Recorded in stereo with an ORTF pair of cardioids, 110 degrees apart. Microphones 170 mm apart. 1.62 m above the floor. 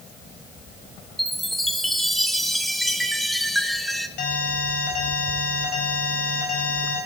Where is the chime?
Straight ahead, 0.9 m.